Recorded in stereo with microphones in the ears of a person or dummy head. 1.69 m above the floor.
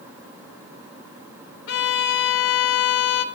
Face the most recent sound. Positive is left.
turn(degrees=65)  # may be behind; listen again after turning